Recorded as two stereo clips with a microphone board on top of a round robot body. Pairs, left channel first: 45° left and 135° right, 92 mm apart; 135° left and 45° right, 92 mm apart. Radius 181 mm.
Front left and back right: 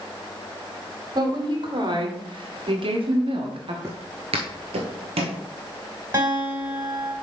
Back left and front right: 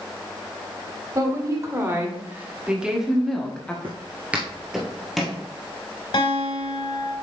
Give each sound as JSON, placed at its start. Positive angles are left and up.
{"t": 1.1, "sound": "a woman speaking", "azimuth_deg": -95, "distance_m": 2.0}
{"t": 3.8, "sound": "footsteps", "azimuth_deg": -80, "distance_m": 0.6}
{"t": 6.1, "sound": "a guitar", "azimuth_deg": 160, "distance_m": 3.5}